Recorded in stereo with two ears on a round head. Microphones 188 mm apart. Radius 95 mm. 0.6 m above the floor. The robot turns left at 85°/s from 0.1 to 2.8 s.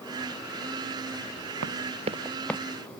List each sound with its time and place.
1.6 s running footsteps: 70° right (ahead or behind); by 2.6 s 15° left (ahead or behind)